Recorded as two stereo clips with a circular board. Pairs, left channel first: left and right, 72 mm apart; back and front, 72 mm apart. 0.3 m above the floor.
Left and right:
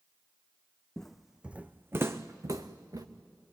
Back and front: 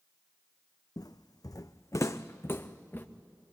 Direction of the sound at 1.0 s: 170° left.